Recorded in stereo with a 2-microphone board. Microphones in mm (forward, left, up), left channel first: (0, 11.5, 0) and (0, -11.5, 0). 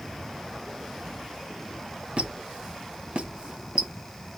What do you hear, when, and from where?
2.2 s a squeak: 50° right (ahead or behind), 0.6 m